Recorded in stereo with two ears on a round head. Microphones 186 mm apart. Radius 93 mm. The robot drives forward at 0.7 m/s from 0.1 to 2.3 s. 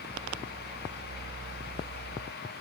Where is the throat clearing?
No throat clearing in this recording.